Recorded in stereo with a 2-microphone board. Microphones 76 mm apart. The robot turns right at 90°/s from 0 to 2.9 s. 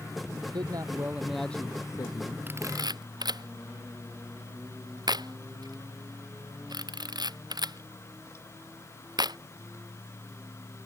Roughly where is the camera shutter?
Right.